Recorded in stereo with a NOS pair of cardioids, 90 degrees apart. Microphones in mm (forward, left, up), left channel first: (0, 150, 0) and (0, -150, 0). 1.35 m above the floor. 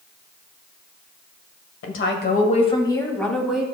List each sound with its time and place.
1.8 s a woman speaking: 50° left, 1.5 m; by 3.6 s 5° right, 2 m